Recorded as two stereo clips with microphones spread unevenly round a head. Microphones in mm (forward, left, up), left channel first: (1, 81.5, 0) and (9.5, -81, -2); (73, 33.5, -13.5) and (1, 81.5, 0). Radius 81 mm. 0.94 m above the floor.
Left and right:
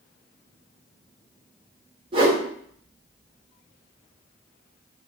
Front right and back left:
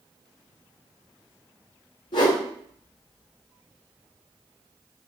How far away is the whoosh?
About 0.7 m.